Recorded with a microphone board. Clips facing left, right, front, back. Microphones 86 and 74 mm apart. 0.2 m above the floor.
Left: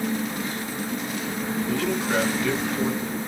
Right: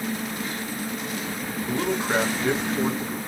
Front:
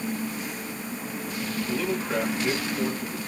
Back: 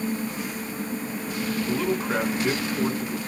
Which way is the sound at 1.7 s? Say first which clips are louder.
Right 2 dB, back 2 dB; 135° right.